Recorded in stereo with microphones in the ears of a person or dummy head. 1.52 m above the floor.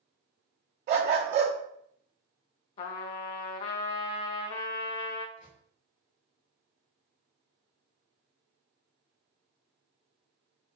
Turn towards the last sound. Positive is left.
turn(degrees=45)  # may be behind; listen again after turning